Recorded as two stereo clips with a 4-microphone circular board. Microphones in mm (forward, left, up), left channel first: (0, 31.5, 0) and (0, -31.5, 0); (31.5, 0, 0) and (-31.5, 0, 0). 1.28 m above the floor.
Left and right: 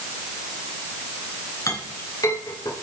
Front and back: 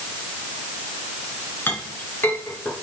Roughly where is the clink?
Ahead left.